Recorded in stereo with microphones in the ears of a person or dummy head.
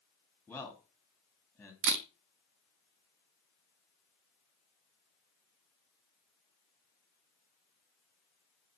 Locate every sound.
0.5 s a man speaking: centre (ahead or behind), 3 m
1.8 s a camera shutter: 50° right (ahead or behind), 0.9 m